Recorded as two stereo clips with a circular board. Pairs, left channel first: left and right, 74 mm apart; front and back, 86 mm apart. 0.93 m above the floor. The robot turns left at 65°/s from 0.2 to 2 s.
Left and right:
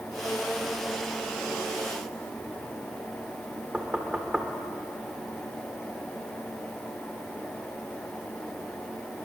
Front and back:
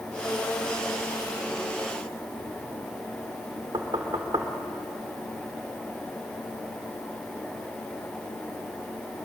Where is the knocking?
170° right, 2.5 m.